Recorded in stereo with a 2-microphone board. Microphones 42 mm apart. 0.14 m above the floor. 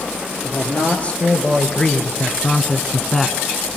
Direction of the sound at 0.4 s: 35° left (ahead or behind).